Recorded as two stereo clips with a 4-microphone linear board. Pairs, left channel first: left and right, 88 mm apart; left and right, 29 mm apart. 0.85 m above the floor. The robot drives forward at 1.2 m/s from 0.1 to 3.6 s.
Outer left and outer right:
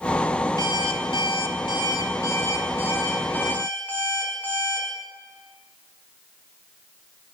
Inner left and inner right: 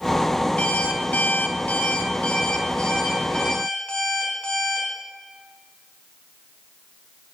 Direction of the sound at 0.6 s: 50° left (ahead or behind).